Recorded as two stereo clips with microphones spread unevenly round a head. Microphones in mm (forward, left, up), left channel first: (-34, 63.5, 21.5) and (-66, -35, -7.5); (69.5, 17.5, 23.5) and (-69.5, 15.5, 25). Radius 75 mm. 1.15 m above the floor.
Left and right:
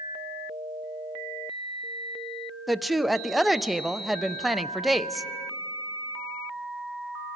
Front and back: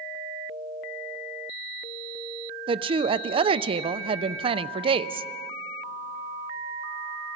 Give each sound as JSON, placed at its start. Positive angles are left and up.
{"t": 2.7, "sound": "a woman speaking", "azimuth_deg": -175, "distance_m": 0.6}